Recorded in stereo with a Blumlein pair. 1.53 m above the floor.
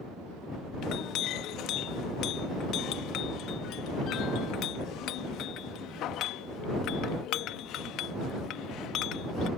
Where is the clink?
35° left.